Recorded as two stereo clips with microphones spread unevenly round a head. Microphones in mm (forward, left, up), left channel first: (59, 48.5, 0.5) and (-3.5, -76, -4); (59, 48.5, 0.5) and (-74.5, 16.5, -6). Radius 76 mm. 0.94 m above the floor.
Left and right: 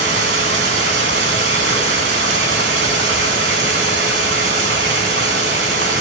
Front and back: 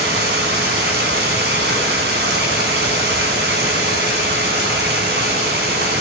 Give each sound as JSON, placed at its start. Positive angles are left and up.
{"t": 0.0, "sound": "running water", "azimuth_deg": -135, "distance_m": 5.0}